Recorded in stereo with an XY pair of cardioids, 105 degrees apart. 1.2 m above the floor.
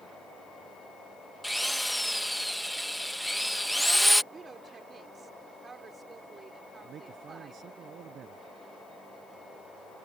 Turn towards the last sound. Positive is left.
turn(degrees=-60)